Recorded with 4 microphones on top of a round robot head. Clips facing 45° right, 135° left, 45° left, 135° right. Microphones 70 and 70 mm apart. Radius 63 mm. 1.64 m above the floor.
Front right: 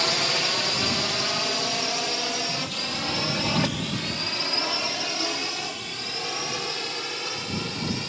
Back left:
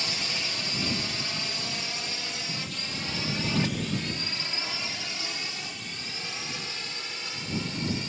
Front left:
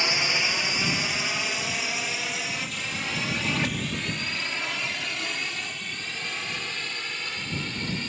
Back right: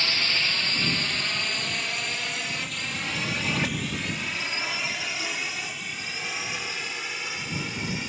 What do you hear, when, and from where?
0.0 s a drone: 30° right; by 8.1 s 55° right